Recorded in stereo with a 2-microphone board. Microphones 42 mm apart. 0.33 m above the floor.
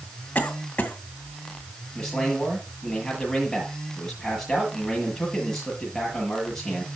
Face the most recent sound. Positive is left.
turn(degrees=10)  # may be behind; listen again after turning